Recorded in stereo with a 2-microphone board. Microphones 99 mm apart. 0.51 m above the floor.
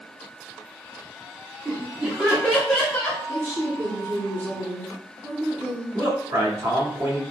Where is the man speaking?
40° right (ahead or behind), 1.9 m.